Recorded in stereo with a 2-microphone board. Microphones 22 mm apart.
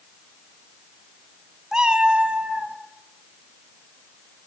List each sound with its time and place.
1.7 s a cat meowing: 30° right (ahead or behind), 0.7 m; by 2.8 s 70° right (ahead or behind), 1.9 m